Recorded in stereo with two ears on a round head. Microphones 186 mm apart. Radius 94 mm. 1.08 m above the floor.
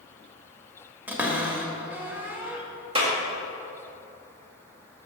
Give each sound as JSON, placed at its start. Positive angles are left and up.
{"t": 1.1, "sound": "a cupboard door", "side_deg": -10, "distance_m": 1.1}
{"t": 3.0, "sound": "a clap", "side_deg": -25, "distance_m": 1.7}